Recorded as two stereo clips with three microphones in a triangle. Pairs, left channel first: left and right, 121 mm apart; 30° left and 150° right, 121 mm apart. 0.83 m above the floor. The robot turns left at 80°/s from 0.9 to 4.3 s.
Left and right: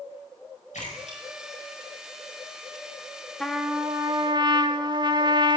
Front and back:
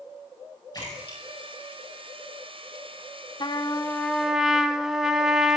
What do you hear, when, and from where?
0.7 s a splash: 85° left, 5.5 m; by 2.6 s 55° right, 5.5 m
3.4 s a trumpet: 5° left, 0.9 m; by 5.6 s 65° right, 0.9 m